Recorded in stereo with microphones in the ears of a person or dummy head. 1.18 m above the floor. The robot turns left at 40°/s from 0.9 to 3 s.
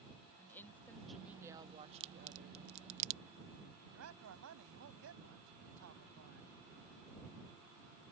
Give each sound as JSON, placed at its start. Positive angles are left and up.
{"t": 0.4, "sound": "a woman speaking", "azimuth_deg": 10}
{"t": 2.0, "sound": "a crack", "side_deg": -30}
{"t": 3.9, "sound": "a man speaking", "side_deg": -75}